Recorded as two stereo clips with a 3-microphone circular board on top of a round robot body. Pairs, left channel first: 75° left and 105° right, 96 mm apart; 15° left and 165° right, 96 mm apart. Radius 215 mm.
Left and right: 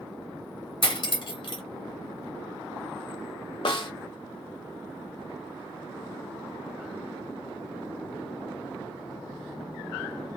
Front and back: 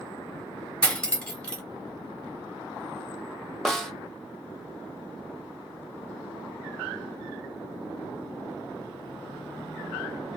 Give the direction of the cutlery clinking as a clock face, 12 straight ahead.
9 o'clock.